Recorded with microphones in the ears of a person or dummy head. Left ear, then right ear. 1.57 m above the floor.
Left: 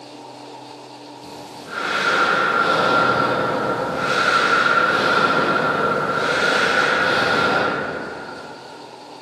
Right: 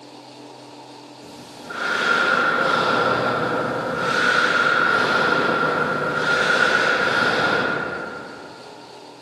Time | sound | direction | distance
1.2 | breathing | 10° right (ahead or behind) | 1.2 m